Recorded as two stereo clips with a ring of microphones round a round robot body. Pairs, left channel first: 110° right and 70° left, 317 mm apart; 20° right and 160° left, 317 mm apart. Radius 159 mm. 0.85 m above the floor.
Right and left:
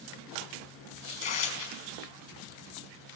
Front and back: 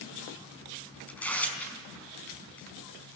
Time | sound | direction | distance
1.1 | tearing paper | 110° right | 5 m